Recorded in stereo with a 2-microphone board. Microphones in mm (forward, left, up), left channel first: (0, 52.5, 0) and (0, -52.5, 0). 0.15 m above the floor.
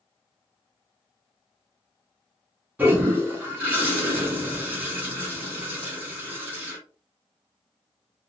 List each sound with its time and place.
2.8 s a toilet flushing: 15° right (ahead or behind), 1.1 m